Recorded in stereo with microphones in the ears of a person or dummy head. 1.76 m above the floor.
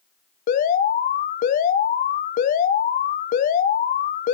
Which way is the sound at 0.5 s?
50° left (ahead or behind).